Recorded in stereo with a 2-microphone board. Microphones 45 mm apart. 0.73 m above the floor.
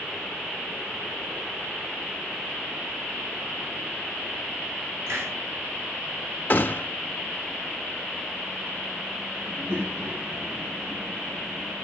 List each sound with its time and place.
5.1 s a hiss: 65° right (ahead or behind), 3.5 m
6.5 s a gunshot: 35° left (ahead or behind), 1.3 m
9.4 s a child speaking: 75° right (ahead or behind), 6 m